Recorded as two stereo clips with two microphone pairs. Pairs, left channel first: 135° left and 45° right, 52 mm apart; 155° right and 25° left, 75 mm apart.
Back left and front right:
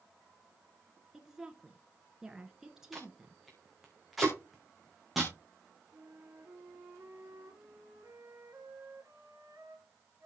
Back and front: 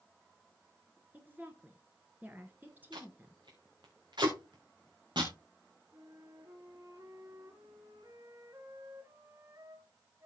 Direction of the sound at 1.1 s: 25° left.